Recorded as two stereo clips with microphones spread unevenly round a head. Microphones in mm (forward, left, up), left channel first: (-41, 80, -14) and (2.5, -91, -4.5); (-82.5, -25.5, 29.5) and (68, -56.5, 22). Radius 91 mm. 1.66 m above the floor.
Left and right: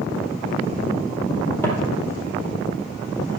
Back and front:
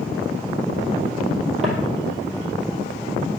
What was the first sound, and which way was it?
Footsteps, 30° left.